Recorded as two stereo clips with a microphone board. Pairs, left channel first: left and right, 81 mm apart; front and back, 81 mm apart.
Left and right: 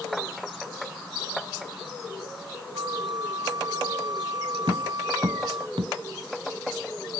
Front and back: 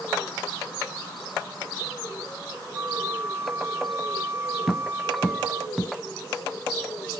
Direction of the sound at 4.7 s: 90° right.